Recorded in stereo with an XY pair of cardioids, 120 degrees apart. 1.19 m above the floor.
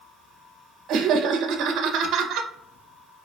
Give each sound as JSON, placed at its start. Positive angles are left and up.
{"t": 0.9, "sound": "laughter", "azimuth_deg": -70, "distance_m": 0.7}